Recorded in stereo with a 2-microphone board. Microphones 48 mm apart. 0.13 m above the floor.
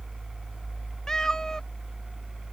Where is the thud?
I don't hear a thud.